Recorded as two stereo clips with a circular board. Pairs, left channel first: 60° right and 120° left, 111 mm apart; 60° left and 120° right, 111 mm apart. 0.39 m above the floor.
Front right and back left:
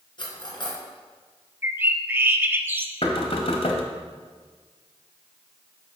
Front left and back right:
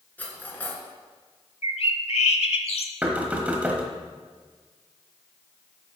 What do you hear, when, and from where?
0.2 s cutlery clinking: 15° right, 2.5 m
1.6 s a bird: 50° left, 0.7 m
3.0 s knocking: 45° right, 1.3 m